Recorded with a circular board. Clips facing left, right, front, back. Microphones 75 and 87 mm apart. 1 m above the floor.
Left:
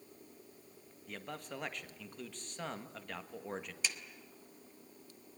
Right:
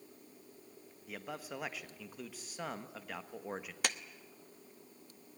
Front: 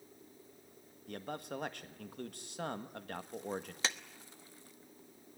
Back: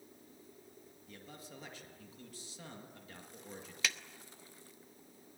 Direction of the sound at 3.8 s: 60° right.